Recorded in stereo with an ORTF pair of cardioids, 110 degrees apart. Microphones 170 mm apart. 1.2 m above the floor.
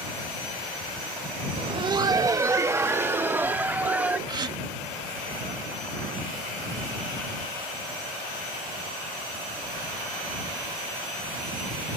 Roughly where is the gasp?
Ahead right.